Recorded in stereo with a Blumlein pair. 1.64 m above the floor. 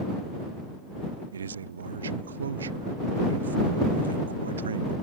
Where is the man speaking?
70° right.